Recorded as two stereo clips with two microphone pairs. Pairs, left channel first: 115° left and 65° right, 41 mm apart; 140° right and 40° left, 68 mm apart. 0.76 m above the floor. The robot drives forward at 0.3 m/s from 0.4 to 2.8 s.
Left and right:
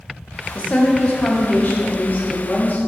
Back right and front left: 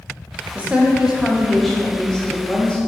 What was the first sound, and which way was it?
A woman speaking, 95° left.